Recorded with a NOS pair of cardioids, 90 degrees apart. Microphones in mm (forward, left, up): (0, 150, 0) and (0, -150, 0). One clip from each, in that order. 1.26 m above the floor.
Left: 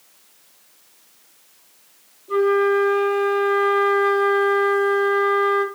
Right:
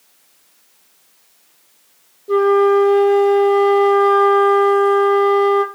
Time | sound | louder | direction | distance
2.3 | a flute | right 5 dB | 65° right | 1.1 m